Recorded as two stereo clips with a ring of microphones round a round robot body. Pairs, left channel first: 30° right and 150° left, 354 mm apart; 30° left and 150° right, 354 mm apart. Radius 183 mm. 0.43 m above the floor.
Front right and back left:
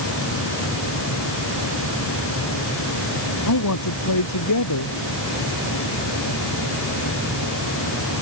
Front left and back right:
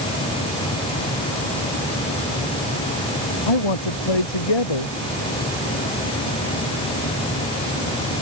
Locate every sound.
3.5 s a man speaking: 15° left